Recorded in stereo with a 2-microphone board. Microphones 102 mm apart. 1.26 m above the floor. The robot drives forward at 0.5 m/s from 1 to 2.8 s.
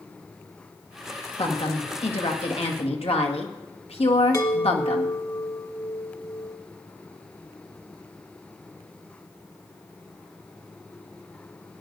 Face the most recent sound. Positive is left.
turn(degrees=30)  # may be behind; listen again after turning